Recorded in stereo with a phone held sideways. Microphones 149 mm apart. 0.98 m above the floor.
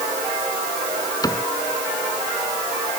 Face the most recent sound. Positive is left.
turn(degrees=25)  # may be behind; listen again after turning